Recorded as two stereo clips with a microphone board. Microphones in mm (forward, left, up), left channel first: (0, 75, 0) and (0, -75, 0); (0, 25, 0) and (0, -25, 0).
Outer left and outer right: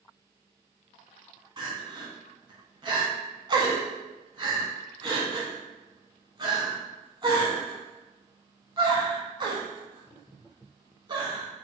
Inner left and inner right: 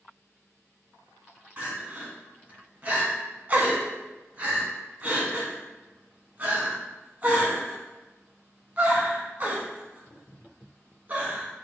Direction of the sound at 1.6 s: 35° right (ahead or behind).